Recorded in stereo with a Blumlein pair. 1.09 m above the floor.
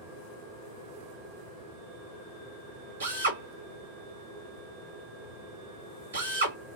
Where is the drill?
70° right, 1.7 m.